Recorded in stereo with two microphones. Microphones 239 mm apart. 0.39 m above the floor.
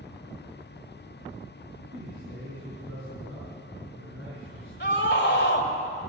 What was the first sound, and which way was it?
A man speaking, 65° right (ahead or behind).